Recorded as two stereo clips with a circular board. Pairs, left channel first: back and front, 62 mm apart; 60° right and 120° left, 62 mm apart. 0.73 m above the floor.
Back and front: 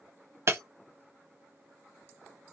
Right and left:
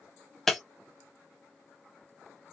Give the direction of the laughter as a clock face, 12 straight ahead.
No laughter in this recording.